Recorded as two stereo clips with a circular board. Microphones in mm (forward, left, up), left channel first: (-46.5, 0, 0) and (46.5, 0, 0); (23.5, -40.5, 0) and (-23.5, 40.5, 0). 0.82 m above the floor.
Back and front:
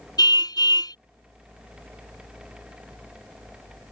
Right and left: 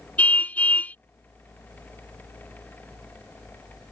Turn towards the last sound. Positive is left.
turn(degrees=-135)